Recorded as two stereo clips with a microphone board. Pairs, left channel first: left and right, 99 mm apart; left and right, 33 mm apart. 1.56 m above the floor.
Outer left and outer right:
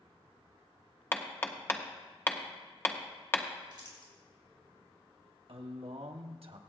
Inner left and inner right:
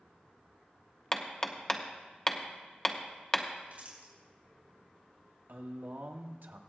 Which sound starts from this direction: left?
Hammering, at 1.1 s.